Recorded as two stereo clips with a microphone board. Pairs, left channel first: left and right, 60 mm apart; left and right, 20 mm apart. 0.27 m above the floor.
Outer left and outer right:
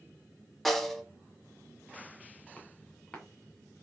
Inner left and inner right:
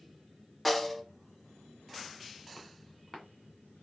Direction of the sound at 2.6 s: 15° left (ahead or behind).